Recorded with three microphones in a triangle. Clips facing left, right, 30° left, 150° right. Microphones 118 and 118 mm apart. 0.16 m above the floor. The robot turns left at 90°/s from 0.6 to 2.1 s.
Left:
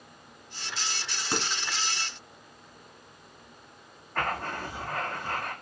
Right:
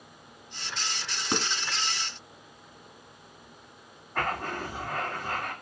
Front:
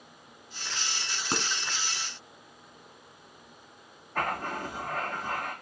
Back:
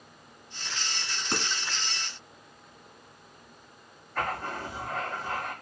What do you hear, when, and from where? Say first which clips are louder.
1.3 s dishes clattering: right 2 dB, even; 30° right, 1.2 m; by 1.5 s 45° right, 1.2 m
4.2 s writing: even, front 1 dB; 15° right, 2 m